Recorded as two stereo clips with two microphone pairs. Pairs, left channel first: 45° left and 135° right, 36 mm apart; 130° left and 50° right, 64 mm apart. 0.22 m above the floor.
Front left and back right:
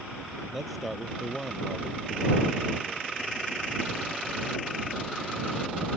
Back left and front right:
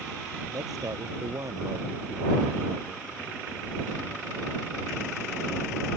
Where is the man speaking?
50° right; by 3.0 s 20° right.